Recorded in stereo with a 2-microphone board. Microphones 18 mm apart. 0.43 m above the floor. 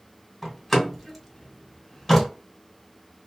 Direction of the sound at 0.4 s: 10° left (ahead or behind).